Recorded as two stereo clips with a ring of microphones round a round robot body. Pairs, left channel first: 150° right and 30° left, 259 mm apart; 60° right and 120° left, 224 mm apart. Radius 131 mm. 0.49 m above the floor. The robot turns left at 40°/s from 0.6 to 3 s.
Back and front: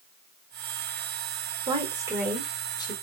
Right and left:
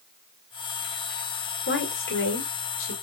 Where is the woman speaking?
30° right, 1.9 m; by 2.9 s 80° right, 1.9 m.